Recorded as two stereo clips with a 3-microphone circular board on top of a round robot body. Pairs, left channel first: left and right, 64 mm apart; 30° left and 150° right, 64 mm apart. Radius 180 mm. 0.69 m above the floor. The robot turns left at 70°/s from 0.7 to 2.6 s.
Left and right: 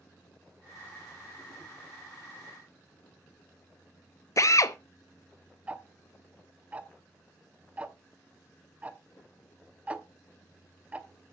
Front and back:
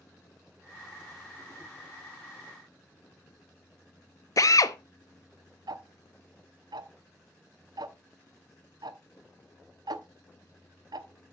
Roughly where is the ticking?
Behind.